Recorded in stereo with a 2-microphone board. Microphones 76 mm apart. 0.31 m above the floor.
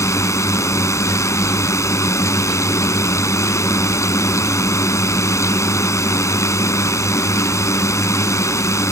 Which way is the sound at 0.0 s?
40° left (ahead or behind).